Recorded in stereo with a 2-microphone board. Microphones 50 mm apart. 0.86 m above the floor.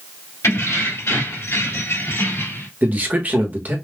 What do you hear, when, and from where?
0.4 s keys jangling: 80° left, 2.5 m; by 2.7 s 60° left (ahead or behind), 3 m
2.8 s a man speaking: 35° right (ahead or behind), 1.2 m